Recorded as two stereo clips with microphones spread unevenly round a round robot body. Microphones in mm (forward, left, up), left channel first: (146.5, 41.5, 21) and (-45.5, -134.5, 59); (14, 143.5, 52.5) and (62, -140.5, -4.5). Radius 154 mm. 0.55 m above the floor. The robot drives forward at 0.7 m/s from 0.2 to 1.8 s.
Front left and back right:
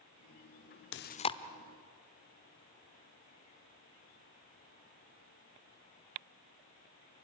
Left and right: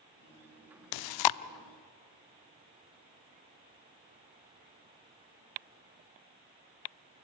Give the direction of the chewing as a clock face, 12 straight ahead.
9 o'clock.